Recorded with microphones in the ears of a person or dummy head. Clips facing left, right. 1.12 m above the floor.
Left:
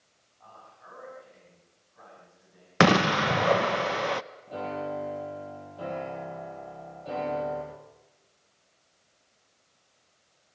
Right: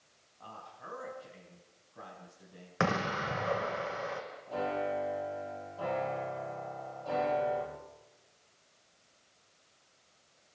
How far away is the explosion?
About 0.5 m.